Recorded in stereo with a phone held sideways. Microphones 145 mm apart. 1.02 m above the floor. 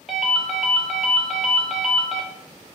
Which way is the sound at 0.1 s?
Centre (ahead or behind).